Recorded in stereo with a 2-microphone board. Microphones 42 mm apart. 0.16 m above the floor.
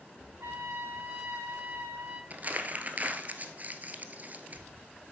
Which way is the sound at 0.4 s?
80° right.